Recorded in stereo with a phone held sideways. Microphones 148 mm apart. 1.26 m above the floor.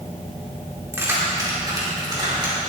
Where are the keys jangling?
20° right (ahead or behind), 2.5 m; by 2.6 s 30° right (ahead or behind), 3 m.